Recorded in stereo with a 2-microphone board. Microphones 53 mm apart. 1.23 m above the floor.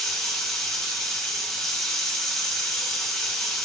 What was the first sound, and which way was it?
Running water, 5° left (ahead or behind).